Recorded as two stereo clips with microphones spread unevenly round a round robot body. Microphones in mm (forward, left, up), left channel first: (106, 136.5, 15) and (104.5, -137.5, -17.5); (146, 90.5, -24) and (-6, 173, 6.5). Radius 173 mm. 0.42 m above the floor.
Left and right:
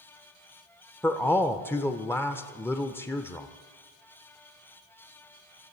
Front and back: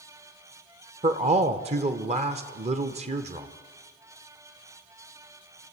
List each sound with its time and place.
1.0 s a man speaking: 175° left, 1.0 m